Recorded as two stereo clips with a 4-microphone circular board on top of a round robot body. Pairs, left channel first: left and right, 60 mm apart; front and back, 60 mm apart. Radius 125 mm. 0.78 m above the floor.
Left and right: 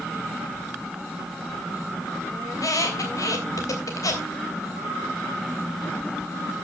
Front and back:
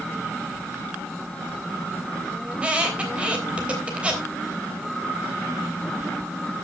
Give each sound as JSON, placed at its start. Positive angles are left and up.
{"t": 2.5, "sound": "a squeak", "azimuth_deg": 110, "distance_m": 3.0}